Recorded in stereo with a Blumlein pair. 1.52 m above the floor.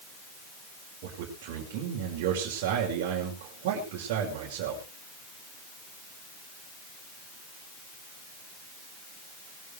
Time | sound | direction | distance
1.0 | a man speaking | 45° right | 6 m